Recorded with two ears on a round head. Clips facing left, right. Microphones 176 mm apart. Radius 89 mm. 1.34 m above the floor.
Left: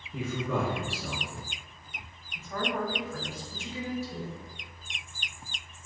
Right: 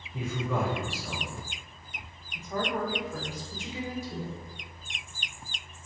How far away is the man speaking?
About 1.0 m.